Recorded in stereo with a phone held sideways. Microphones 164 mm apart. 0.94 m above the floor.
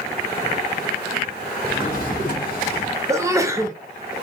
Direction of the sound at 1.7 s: 55° left (ahead or behind).